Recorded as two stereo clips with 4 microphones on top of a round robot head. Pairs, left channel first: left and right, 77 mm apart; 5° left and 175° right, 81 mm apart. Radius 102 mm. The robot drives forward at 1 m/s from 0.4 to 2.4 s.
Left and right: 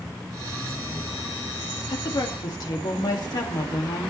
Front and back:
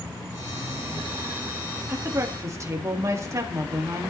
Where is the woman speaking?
120° left, 2 m; by 4.1 s 130° left, 2.5 m.